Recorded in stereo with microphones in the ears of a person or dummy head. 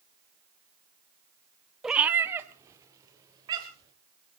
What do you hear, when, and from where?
1.8 s a cat meowing: centre (ahead or behind), 0.9 m; by 3.9 s 20° right (ahead or behind), 4 m